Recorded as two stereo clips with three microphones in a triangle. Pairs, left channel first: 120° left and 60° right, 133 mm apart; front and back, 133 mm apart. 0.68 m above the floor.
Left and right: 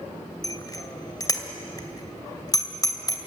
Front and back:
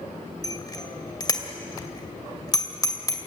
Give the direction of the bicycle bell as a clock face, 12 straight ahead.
10 o'clock.